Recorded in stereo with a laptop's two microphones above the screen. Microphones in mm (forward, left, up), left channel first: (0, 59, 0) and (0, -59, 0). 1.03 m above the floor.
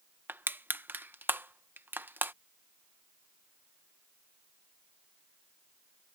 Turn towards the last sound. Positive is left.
turn(degrees=-15)  # may be behind; listen again after turning